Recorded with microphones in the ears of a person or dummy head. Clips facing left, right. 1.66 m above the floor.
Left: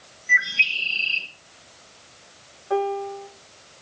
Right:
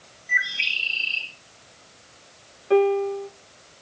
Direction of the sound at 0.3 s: 40° left (ahead or behind).